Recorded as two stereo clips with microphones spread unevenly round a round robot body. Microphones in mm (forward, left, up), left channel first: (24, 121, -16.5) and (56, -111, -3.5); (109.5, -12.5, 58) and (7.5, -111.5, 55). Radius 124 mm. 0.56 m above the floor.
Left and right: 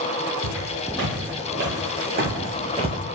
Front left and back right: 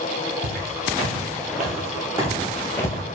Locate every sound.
0.4 s footsteps: 130° right, 1.7 m; by 3.0 s 15° right, 0.8 m